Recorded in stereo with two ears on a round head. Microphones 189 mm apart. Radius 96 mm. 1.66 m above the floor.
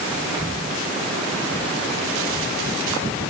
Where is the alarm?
No alarm in this recording.